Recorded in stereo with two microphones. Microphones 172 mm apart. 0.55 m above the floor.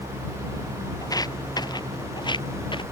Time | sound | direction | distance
1.0 | footsteps | 20° left (ahead or behind) | ?